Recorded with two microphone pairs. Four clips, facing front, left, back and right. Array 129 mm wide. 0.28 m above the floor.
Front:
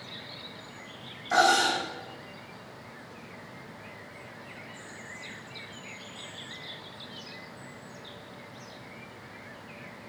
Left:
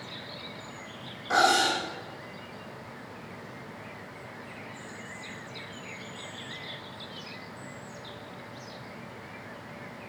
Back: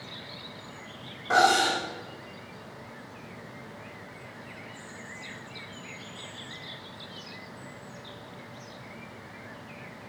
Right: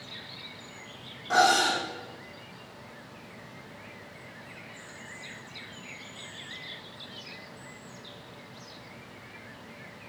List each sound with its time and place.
1.3 s cutlery clinking: straight behind, 7.5 m